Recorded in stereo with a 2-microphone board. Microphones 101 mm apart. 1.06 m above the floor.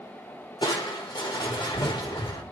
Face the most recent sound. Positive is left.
turn(degrees=50)  # may be behind; listen again after turning